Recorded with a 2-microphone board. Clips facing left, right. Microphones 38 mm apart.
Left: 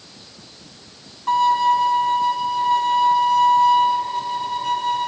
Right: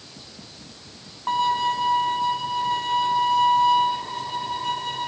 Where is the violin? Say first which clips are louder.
Left 6 dB; 20° right (ahead or behind), 5.5 m.